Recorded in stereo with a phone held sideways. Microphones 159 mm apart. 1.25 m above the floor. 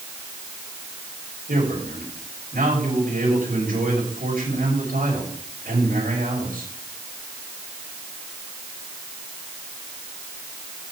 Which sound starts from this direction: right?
A man speaking, at 1.5 s.